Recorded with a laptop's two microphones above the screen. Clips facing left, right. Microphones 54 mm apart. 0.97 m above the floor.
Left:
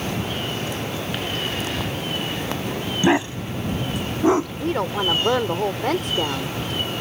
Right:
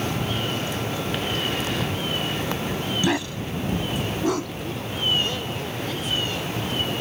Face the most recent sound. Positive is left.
turn(degrees=60)  # may be behind; listen again after turning